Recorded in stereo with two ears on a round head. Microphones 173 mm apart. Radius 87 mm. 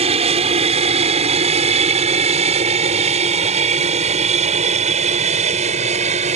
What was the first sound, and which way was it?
An aircraft, 30° right (ahead or behind).